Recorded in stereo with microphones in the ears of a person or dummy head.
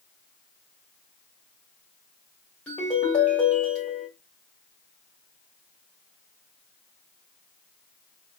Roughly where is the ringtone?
Centre.